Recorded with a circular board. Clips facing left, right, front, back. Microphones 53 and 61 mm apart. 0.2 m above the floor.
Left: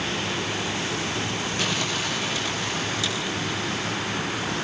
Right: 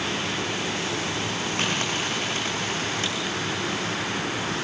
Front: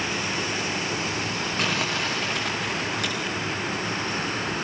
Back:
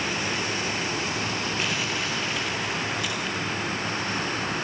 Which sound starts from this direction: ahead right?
Crumpling, at 1.6 s.